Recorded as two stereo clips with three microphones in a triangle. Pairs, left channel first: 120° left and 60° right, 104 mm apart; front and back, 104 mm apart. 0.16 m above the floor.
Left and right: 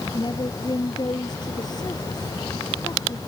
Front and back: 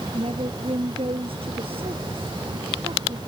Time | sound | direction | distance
0.1 | a woman speaking | 165° left | ?